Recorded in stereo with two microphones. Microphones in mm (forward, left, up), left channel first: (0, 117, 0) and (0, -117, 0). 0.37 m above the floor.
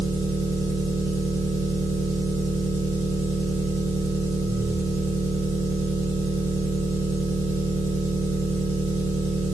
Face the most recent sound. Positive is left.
turn(degrees=-75)  # may be behind; listen again after turning